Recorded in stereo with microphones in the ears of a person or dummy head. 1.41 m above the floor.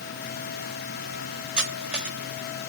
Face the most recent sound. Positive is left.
turn(degrees=-5)  # may be behind; listen again after turning